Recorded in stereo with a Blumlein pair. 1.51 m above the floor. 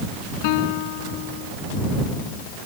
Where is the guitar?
45° left.